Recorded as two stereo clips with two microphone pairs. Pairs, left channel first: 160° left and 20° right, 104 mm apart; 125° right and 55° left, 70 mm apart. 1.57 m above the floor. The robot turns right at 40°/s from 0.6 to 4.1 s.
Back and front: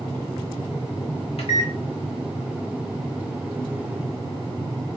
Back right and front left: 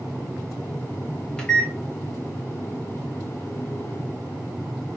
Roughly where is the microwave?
Behind left.